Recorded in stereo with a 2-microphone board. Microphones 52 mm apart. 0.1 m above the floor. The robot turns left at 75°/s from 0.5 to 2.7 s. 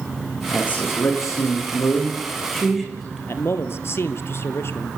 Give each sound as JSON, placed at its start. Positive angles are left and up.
{"t": 0.5, "sound": "a man speaking", "azimuth_deg": 160, "distance_m": 6.5}
{"t": 3.3, "sound": "a man speaking", "side_deg": 55, "distance_m": 2.0}